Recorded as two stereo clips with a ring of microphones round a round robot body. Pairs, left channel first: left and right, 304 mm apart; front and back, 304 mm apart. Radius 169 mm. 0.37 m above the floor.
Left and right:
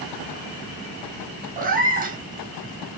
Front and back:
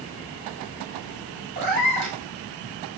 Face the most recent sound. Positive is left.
turn(degrees=-155)